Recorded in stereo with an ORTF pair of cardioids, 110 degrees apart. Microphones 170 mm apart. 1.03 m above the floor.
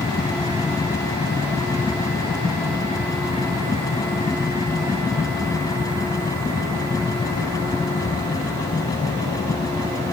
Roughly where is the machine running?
Ahead.